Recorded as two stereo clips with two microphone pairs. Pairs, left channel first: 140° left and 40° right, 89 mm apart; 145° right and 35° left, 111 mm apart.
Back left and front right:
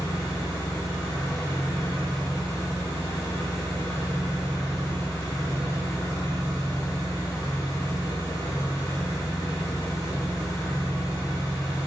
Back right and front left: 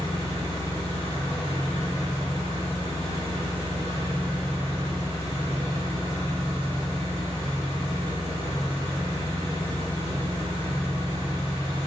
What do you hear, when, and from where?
0.0 s an engine running: straight behind, 1.5 m